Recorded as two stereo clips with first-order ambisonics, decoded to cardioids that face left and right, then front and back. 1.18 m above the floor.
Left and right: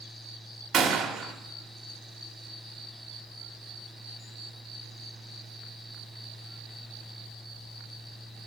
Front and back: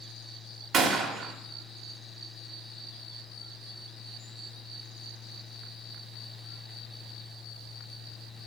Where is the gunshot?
145° right, 0.8 m.